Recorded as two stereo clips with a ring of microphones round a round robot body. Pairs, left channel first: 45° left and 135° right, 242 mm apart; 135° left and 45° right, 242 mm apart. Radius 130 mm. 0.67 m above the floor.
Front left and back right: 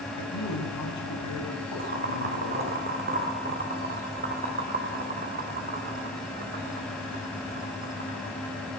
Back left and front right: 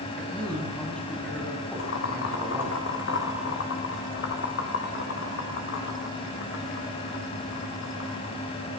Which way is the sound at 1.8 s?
175° left.